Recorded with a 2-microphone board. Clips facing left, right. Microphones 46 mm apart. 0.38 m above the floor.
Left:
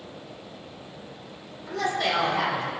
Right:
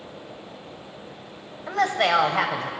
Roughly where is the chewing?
No chewing in this recording.